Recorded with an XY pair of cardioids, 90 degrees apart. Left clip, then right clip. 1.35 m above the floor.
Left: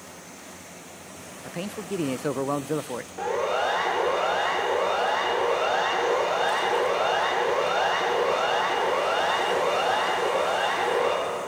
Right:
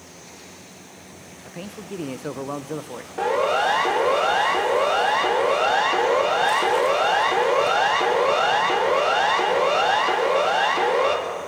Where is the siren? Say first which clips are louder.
Right 5 dB; 55° right, 4 m.